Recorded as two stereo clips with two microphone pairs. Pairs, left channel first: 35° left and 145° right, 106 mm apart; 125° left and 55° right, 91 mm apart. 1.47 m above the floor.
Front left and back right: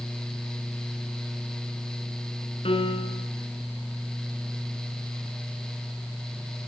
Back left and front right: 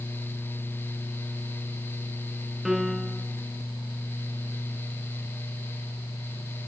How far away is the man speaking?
I don't hear a man speaking.